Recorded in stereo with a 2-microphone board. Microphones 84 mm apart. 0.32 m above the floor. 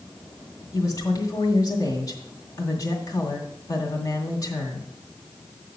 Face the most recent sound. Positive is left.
turn(degrees=45)  # may be behind; listen again after turning